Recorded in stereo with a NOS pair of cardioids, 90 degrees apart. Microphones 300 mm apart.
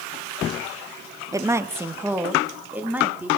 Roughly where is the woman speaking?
Ahead.